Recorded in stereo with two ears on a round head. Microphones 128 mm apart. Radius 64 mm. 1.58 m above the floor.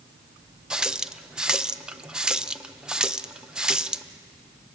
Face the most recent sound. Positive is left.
turn(degrees=-5)  # may be behind; listen again after turning